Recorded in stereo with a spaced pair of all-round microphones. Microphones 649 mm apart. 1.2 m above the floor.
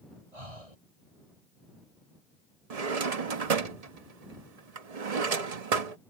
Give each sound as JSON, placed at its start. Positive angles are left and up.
{"t": 0.3, "sound": "breathing", "side_deg": -55}
{"t": 2.7, "sound": "a drawer", "side_deg": -60}